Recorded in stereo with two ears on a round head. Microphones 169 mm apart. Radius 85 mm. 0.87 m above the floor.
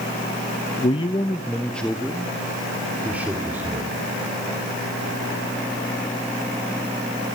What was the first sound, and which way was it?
A man speaking, 35° left (ahead or behind).